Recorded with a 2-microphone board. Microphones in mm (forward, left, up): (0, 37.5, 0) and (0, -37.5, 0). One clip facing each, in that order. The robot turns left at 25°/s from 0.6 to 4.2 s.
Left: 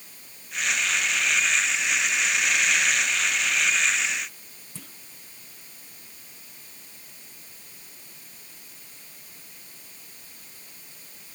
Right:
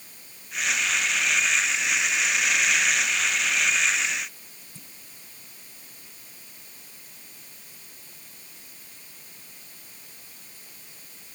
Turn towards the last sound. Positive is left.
turn(degrees=85)